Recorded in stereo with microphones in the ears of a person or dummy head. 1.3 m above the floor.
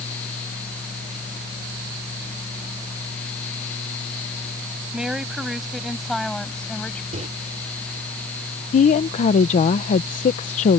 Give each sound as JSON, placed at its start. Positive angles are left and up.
{"t": 4.9, "sound": "a woman speaking", "side_deg": -5}
{"t": 7.1, "sound": "a microwave", "side_deg": -35}
{"t": 8.7, "sound": "a woman speaking", "side_deg": 35}